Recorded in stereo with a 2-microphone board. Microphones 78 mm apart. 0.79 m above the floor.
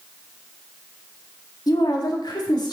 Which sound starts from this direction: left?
A woman speaking, at 1.7 s.